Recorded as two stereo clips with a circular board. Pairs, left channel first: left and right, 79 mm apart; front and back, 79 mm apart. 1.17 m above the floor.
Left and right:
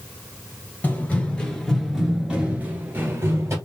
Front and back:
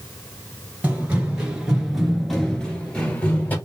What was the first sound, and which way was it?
Running footsteps, 135° left.